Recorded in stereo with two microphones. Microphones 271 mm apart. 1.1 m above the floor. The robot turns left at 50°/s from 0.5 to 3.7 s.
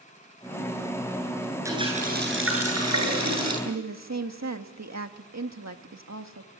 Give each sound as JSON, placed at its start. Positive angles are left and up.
{"t": 1.6, "sound": "a running tap", "azimuth_deg": -10, "distance_m": 9.5}
{"t": 3.6, "sound": "a woman speaking", "side_deg": -75, "distance_m": 1.8}